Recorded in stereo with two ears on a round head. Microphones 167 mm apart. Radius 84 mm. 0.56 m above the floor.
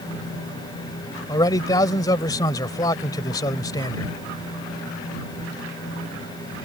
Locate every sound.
1.3 s a man speaking: 20° left (ahead or behind)